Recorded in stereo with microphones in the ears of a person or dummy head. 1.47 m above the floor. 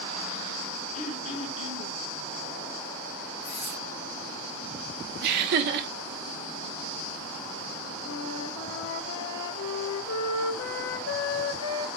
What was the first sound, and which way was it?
Throat clearing, 45° left (ahead or behind).